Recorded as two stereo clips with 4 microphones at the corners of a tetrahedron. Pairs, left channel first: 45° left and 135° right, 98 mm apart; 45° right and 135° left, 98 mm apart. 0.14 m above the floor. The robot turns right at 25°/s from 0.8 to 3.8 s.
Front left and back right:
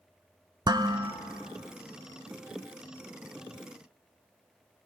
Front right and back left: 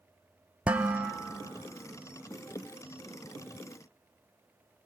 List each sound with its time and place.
0.7 s dishes clattering: 150° right, 1.3 m; by 1.1 s 145° right, 1.3 m